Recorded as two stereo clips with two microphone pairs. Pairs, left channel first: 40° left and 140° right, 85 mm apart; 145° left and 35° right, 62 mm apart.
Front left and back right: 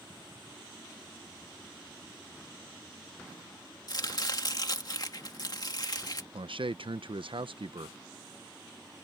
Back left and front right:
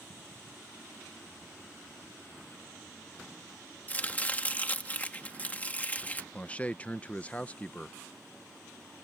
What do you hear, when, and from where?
3.9 s chopping: 80° left
6.3 s a man speaking: 145° right